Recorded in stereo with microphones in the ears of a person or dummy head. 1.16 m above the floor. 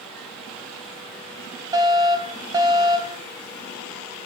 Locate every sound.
1.7 s a fire alarm: 20° right (ahead or behind), 1.8 m